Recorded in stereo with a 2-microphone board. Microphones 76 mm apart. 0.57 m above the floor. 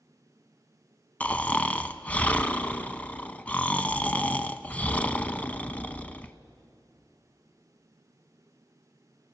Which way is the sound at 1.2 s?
20° left (ahead or behind).